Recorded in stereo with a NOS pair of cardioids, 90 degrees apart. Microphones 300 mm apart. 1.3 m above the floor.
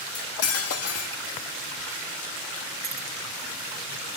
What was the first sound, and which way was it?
Cutlery clinking, 55° left.